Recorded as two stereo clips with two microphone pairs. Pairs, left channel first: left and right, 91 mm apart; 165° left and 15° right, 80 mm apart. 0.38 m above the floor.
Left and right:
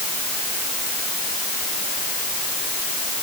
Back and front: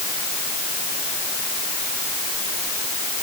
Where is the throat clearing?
I don't hear throat clearing.